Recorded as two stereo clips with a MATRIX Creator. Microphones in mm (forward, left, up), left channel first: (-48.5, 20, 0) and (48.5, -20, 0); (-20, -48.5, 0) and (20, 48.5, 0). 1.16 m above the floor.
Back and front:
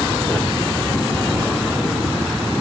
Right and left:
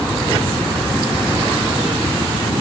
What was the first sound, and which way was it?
Only background noise.